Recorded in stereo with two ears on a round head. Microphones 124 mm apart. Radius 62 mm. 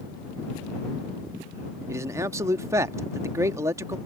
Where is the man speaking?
20° right (ahead or behind).